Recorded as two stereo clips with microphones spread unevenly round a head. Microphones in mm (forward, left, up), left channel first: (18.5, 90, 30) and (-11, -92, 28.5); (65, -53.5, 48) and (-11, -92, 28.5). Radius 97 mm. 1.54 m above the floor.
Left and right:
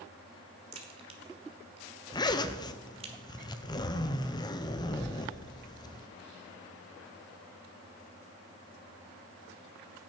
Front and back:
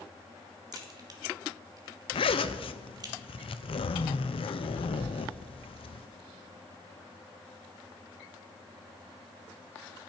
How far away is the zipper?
About 0.6 m.